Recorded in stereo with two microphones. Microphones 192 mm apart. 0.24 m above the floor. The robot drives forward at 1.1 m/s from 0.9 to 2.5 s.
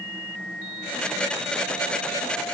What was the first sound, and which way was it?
Only background noise.